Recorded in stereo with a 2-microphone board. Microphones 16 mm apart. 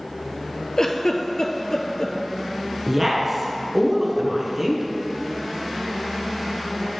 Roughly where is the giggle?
Left.